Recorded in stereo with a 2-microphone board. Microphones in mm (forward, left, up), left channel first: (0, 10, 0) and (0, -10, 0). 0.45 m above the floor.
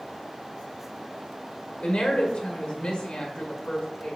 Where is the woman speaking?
50° left (ahead or behind), 2 m.